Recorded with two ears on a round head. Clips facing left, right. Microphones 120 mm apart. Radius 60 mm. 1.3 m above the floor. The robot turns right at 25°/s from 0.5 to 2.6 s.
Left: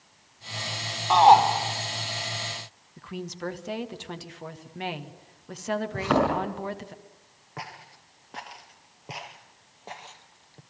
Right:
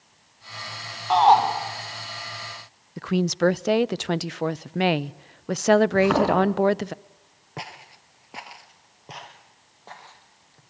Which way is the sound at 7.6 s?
30° right (ahead or behind).